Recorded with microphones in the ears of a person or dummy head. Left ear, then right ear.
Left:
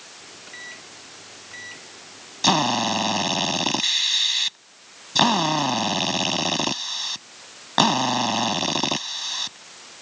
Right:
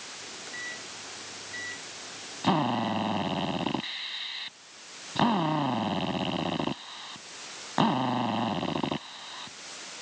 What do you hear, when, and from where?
0.2 s a microwave: 15° left (ahead or behind)
2.4 s a drill: 85° left